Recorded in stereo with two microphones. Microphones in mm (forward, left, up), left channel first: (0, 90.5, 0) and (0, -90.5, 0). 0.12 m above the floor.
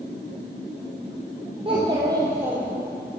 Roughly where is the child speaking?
Right.